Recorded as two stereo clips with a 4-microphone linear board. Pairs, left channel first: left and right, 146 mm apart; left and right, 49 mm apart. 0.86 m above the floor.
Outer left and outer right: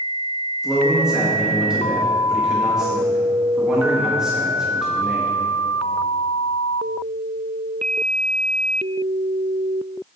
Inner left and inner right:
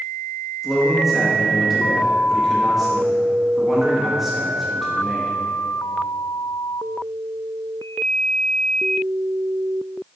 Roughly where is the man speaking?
Centre.